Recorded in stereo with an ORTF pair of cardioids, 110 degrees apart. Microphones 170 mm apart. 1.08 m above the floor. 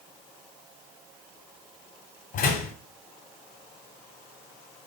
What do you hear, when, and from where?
2.3 s a door slam: 60° left, 3.5 m